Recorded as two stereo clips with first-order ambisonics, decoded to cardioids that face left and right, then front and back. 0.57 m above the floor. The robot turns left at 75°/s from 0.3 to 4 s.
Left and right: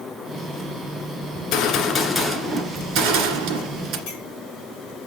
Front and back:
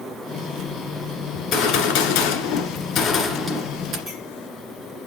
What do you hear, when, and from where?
1.4 s a gunshot: 65° left, 1.8 m; by 4.0 s 130° right, 1.8 m
4.1 s a clink: 105° left, 5 m